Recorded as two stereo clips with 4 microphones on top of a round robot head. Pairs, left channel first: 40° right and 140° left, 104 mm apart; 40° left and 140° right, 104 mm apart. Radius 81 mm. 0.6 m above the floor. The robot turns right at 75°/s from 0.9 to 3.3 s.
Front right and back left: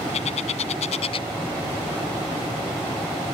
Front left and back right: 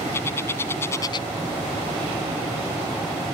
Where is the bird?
25° right; by 1.3 s 5° left.